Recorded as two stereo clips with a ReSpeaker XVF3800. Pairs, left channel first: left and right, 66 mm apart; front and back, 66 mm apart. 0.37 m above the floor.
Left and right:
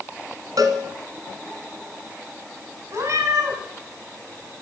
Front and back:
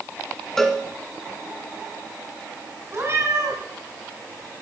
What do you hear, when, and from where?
0.6 s a cowbell: 85° right, 1.7 m
2.9 s a cat meowing: 125° right, 7 m